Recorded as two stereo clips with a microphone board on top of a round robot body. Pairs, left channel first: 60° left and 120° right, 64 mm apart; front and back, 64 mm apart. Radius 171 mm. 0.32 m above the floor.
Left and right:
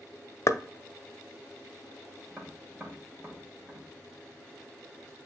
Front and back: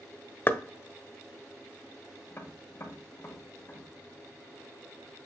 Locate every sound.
0.5 s knocking: 45° left, 0.8 m
2.3 s tapping: 50° right, 1.7 m